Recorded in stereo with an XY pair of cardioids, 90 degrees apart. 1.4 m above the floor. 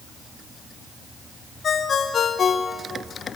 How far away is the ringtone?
About 2.5 m.